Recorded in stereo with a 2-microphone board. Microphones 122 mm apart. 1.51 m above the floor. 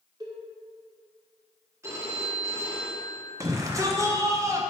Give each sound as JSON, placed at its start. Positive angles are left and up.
{"t": 0.2, "sound": "a cowbell", "side_deg": -30, "distance_m": 1.4}
{"t": 1.8, "sound": "a phone ringing", "side_deg": -25, "distance_m": 1.4}
{"t": 3.4, "sound": "a shout", "side_deg": -25, "distance_m": 1.3}